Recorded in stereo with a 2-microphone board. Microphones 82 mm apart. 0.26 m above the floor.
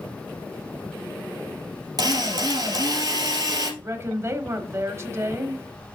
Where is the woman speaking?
35° right (ahead or behind), 1.0 m.